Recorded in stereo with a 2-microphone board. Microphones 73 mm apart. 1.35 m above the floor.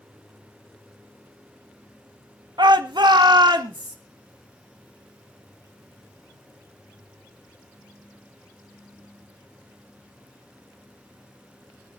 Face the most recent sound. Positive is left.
turn(degrees=-80)